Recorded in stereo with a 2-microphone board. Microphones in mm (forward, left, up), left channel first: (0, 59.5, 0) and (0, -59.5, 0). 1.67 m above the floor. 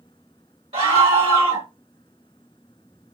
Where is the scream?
50° right (ahead or behind), 1.4 m.